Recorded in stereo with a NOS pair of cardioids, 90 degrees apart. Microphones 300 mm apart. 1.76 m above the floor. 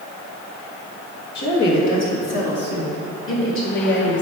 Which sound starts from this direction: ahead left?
A woman speaking, at 1.4 s.